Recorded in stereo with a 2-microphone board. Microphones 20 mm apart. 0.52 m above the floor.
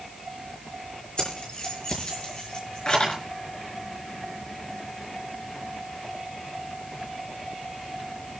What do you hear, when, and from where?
1.2 s keys jangling: 50° left (ahead or behind), 6 m; by 3.2 s 45° left (ahead or behind), 4.5 m